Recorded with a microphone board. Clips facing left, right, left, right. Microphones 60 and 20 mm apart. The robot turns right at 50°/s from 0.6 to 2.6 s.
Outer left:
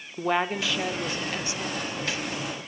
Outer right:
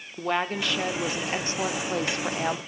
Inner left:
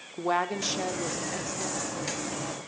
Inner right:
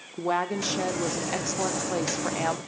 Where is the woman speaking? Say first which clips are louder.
Outer left 1 dB, inner right 1 dB; 175° left, 0.6 m; by 2.6 s 85° right, 0.6 m.